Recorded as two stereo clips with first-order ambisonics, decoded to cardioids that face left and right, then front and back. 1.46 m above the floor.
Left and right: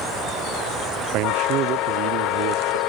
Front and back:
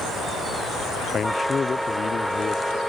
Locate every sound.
1.1 s a man speaking: 70° right